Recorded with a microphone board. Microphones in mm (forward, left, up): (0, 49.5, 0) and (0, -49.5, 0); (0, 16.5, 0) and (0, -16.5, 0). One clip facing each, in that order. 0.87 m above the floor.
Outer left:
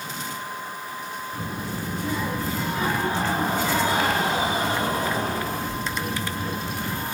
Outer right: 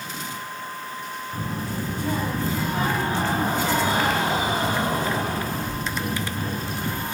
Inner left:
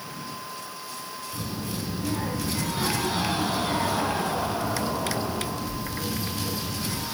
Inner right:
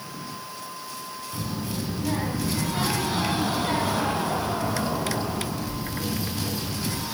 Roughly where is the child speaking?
Right.